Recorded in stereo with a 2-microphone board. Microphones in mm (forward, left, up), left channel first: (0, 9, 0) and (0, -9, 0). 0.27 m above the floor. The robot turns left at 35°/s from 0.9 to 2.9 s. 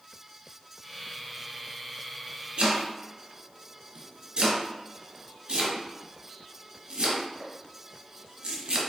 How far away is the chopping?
About 1.3 m.